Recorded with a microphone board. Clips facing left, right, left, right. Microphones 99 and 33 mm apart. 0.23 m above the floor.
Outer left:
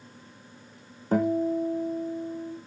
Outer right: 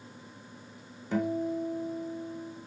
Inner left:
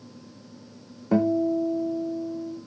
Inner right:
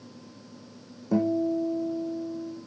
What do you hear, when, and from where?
1.1 s a guitar: 45° left (ahead or behind), 4.5 m